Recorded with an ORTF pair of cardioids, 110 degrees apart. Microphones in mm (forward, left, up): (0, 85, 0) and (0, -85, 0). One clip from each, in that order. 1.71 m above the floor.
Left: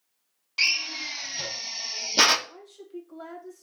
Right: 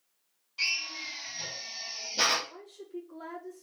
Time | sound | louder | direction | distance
0.6 | a drill | left 6 dB | 60° left | 0.5 m
2.5 | a woman speaking | left 1 dB | 70° left | 1.9 m